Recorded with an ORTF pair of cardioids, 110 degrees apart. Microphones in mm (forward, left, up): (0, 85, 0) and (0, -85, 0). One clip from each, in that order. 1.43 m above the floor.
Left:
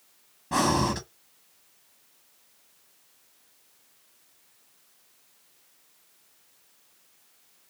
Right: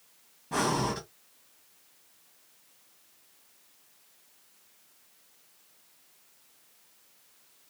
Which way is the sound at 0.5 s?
35° left.